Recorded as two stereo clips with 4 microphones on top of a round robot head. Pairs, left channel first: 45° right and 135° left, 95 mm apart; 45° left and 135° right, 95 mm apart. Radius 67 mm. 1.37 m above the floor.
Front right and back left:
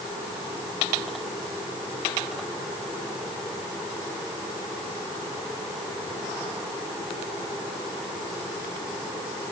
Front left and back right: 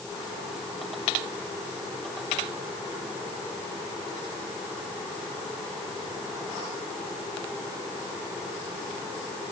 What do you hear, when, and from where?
Only background noise.